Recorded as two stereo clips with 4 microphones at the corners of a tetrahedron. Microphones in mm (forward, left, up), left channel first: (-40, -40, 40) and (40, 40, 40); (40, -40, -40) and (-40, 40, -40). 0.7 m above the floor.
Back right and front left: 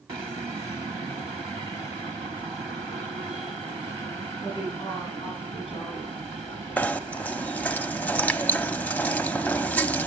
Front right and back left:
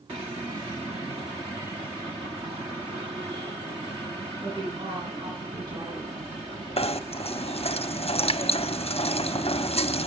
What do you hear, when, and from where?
4.4 s a woman speaking: 175° right, 6 m
6.8 s knocking: 60° right, 0.8 m